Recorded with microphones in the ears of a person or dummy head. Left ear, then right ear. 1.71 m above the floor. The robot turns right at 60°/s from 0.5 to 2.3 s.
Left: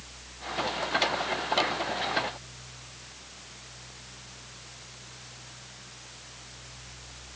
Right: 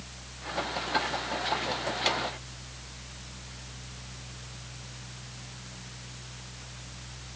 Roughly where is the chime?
No chime in this recording.